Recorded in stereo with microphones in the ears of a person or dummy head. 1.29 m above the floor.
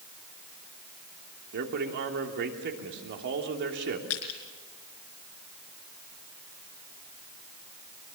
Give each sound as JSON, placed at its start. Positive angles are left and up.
{"t": 1.5, "sound": "a man speaking", "side_deg": -60, "distance_m": 3.0}
{"t": 4.1, "sound": "crushing", "side_deg": 70, "distance_m": 4.5}